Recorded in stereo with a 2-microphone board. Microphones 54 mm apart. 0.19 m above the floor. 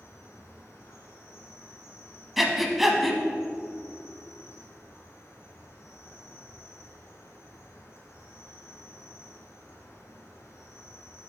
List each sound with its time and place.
0.0 s an insect: 60° left (ahead or behind), 1.5 m
2.4 s breathing: centre (ahead or behind), 0.6 m